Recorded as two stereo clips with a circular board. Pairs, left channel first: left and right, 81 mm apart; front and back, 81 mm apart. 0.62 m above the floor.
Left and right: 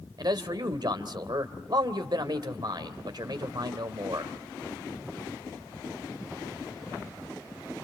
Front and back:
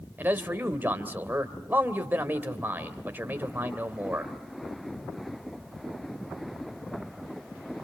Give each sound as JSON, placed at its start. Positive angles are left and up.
{"t": 0.2, "sound": "a man speaking", "azimuth_deg": -115, "distance_m": 2.5}